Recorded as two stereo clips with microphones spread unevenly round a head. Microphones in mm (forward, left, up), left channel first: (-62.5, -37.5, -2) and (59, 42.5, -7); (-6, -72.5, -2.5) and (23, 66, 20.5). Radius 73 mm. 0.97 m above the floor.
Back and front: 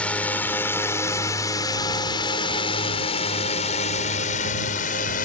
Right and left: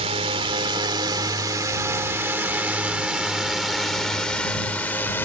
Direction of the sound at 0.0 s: 130° left.